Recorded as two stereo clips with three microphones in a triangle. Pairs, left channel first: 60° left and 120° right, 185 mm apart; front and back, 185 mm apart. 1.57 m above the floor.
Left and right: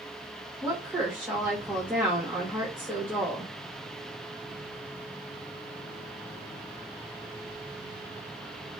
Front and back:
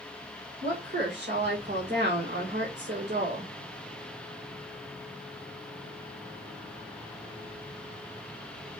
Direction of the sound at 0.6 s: 160° left.